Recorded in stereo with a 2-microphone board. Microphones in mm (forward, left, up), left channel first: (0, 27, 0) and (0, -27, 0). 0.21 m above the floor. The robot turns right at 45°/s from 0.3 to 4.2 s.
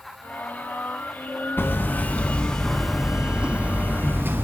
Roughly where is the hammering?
Behind left.